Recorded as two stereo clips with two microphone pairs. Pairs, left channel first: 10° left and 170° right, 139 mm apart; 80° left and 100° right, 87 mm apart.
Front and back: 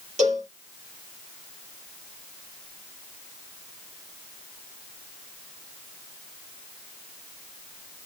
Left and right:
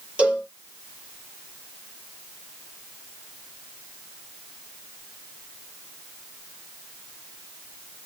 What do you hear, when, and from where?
0.2 s a cowbell: 170° right, 3 m